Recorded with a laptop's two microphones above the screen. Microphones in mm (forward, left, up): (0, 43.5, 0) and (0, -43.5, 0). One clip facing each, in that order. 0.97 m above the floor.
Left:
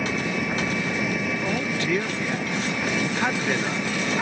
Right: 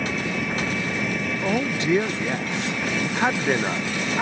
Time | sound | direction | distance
0.0 | an engine running | 5° left (ahead or behind) | ?
1.4 | a man speaking | 20° right (ahead or behind) | ?